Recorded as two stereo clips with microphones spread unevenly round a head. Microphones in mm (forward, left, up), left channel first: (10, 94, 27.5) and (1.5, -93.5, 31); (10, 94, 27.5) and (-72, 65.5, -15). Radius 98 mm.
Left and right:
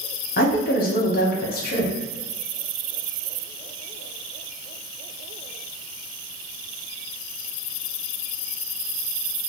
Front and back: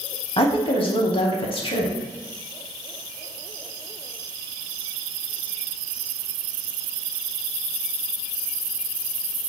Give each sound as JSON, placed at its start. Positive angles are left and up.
{"t": 0.4, "sound": "a woman speaking", "azimuth_deg": 45, "distance_m": 0.8}